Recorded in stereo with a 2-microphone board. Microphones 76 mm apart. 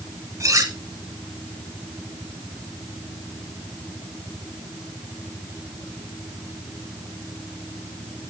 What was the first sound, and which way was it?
Cutlery clinking, 45° right (ahead or behind).